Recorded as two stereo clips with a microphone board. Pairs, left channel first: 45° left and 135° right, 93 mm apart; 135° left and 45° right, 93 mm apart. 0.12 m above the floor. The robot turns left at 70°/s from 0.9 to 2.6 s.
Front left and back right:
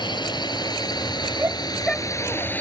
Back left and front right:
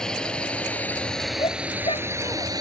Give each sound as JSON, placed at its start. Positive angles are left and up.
{"t": 0.0, "sound": "a drone", "azimuth_deg": 55}
{"t": 1.4, "sound": "a shout", "azimuth_deg": 165}